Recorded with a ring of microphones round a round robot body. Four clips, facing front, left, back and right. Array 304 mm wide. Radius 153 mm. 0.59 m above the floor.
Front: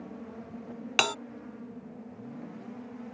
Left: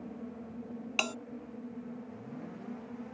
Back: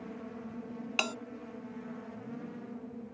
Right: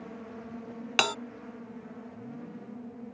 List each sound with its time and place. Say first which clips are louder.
1.0 s a bell: right 8 dB, front 7 dB; 45° right